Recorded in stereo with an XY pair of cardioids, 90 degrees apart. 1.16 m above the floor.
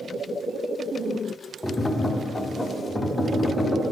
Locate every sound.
1.6 s tapping: 20° left, 0.9 m